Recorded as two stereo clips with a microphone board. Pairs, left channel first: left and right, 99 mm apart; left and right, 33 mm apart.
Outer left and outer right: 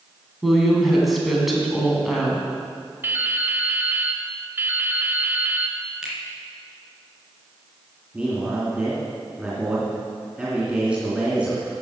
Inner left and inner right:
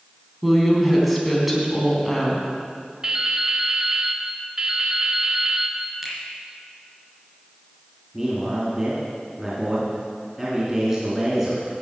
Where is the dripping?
20° right (ahead or behind), 1.0 m.